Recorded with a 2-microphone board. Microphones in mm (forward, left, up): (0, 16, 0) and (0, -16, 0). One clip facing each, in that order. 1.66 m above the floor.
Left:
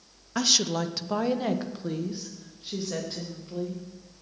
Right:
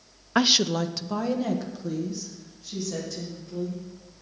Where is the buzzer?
I don't hear a buzzer.